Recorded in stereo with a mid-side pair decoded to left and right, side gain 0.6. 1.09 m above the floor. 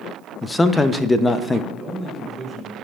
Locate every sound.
0.4 s a man speaking: 15° left, 0.7 m
1.7 s a man speaking: 30° right, 5 m